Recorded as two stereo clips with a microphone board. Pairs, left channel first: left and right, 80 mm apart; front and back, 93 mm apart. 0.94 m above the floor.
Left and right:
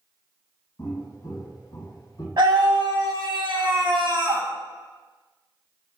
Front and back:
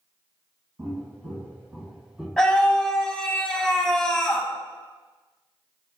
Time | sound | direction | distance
0.8 | footsteps | 130° left | 1.6 m
2.4 | a scream | 80° right | 0.8 m